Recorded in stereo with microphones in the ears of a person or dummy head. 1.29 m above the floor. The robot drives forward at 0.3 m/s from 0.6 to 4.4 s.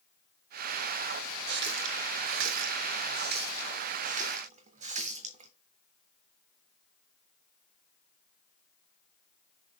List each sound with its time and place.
1.5 s a running tap: 60° right (ahead or behind), 0.7 m; by 5.5 s 40° right (ahead or behind), 0.9 m